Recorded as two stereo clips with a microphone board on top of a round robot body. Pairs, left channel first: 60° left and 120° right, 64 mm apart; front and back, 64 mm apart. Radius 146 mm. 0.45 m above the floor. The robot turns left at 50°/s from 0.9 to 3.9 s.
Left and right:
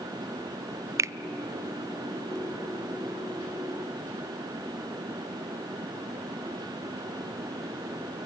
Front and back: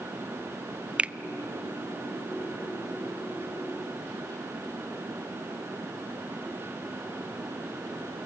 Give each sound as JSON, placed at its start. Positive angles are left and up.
{"t": 1.0, "sound": "a finger snap", "azimuth_deg": -115, "distance_m": 0.6}